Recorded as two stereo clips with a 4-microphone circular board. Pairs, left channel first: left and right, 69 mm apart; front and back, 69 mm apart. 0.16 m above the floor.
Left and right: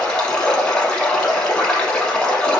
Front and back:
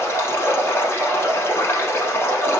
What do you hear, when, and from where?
0.0 s running water: 20° left, 0.9 m